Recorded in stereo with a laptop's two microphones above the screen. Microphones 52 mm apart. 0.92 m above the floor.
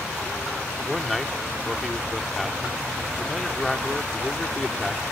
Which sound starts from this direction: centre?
A man speaking, at 0.9 s.